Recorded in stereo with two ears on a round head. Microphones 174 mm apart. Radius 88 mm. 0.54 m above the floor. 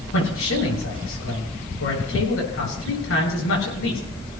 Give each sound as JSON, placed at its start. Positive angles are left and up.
{"t": 0.1, "sound": "a man speaking", "side_deg": 85, "distance_m": 9.0}